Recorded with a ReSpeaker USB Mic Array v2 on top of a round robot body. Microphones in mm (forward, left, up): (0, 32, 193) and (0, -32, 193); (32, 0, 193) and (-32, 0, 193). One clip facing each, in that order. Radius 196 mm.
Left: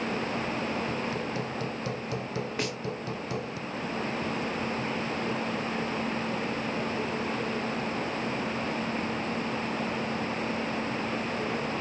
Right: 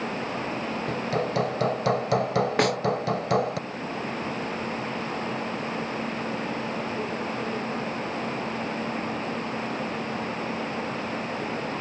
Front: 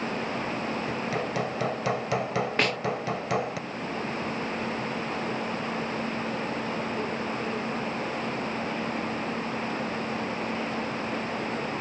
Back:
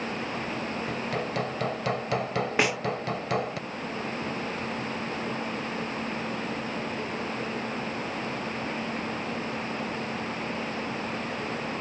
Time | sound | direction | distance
0.9 | hammering | 85° right | ?
2.6 | a snare drum | 100° right | ?